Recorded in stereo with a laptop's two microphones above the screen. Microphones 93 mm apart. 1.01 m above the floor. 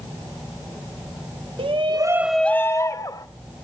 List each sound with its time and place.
1.6 s a shout: 70° right (ahead or behind), 0.8 m; by 3.3 s 45° left (ahead or behind), 1.4 m